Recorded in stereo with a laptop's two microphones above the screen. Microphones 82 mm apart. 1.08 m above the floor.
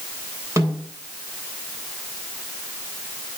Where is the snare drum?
40° right (ahead or behind), 8 m.